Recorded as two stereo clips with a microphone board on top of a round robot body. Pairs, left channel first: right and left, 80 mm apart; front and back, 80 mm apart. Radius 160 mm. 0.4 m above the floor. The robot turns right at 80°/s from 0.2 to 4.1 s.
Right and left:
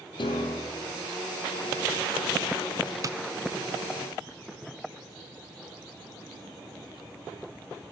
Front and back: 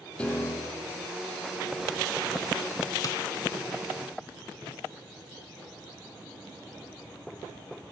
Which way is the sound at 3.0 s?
45° left.